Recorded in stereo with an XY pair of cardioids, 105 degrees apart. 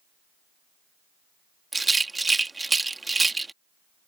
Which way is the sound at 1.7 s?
20° right.